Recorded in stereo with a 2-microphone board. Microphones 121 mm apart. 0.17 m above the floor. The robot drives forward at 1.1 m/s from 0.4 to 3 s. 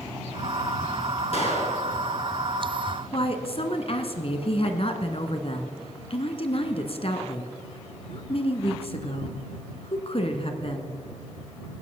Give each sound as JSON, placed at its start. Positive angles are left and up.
{"t": 1.3, "sound": "a gunshot", "side_deg": 55, "distance_m": 2.5}
{"t": 3.1, "sound": "a woman speaking", "side_deg": 50, "distance_m": 1.6}